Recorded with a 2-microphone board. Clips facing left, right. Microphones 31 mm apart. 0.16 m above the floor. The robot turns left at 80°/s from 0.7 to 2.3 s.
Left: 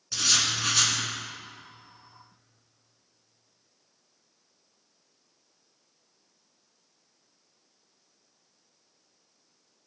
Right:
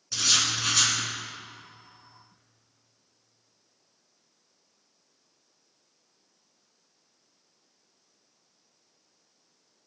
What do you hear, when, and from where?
0.1 s writing: 5° left (ahead or behind), 1.8 m; by 0.9 s 20° left (ahead or behind), 1.8 m